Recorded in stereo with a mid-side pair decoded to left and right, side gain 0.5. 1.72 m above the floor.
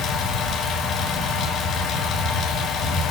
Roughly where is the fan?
Ahead left.